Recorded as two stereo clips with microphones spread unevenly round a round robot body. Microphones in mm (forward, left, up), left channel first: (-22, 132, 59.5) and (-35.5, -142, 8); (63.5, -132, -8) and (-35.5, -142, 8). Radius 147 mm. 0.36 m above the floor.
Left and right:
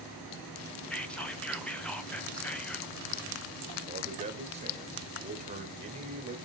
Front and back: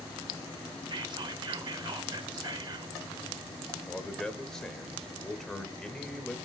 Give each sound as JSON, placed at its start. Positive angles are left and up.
{"t": 0.9, "sound": "whispering", "azimuth_deg": -175, "distance_m": 1.0}
{"t": 3.9, "sound": "a man speaking", "azimuth_deg": -65, "distance_m": 1.3}